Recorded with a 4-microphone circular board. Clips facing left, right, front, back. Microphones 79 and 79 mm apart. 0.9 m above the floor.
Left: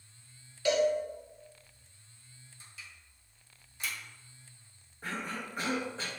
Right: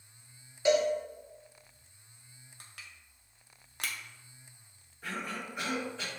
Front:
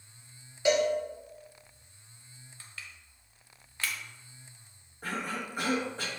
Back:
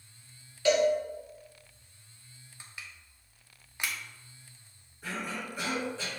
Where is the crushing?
105° right, 0.6 m.